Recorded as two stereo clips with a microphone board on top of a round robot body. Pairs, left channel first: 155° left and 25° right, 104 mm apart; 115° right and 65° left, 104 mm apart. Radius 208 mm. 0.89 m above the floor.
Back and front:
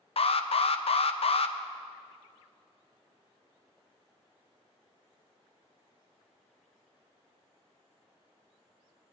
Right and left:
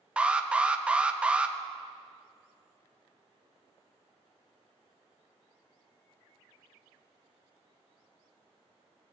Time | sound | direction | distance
0.2 | an alarm | 145° left | 0.6 m